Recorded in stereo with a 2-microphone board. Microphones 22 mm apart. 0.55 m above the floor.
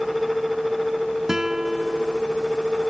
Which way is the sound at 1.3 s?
20° right (ahead or behind).